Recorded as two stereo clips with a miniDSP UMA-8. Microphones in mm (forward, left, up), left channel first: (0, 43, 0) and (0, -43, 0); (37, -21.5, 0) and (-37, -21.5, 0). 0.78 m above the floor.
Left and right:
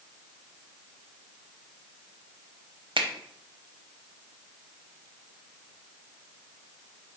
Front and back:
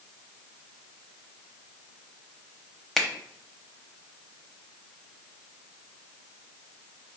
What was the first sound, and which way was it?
A finger snap, 90° right.